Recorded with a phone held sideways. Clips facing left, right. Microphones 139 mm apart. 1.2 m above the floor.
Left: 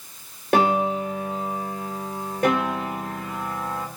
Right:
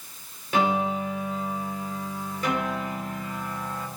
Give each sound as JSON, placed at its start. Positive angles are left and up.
{"t": 0.5, "sound": "a piano", "side_deg": 65, "distance_m": 2.5}